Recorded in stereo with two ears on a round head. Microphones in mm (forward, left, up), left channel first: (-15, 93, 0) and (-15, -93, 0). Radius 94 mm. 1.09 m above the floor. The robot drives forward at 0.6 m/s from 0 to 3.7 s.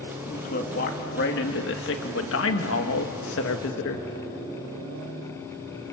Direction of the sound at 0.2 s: 40° left (ahead or behind).